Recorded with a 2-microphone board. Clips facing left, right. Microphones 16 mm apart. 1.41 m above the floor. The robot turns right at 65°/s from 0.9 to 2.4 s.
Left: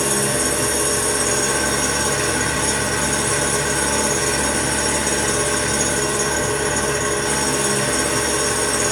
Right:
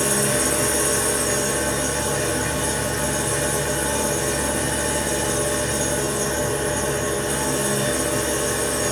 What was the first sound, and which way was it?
An engine running, 20° left.